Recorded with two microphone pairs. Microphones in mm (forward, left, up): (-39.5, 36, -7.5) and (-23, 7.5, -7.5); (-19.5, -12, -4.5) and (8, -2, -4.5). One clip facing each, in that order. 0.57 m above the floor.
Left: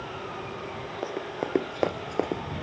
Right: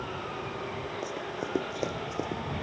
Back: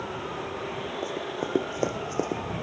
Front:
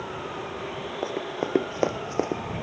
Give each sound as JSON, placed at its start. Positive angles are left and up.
{"t": 1.0, "sound": "running footsteps", "azimuth_deg": 60}